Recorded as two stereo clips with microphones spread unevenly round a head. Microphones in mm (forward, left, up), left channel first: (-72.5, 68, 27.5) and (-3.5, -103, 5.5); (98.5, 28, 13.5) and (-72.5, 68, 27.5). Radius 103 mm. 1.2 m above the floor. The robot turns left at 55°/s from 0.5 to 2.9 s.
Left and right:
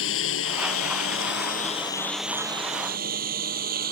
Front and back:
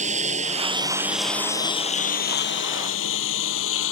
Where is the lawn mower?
120° left; by 3.9 s 15° right.